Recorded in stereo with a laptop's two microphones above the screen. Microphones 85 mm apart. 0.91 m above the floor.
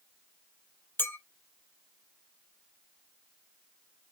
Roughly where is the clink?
Left.